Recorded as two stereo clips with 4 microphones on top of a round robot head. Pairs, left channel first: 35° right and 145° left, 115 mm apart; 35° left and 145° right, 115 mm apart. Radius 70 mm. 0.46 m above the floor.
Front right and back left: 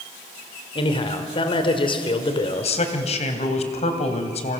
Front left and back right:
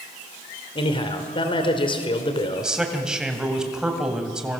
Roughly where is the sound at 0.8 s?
Ahead.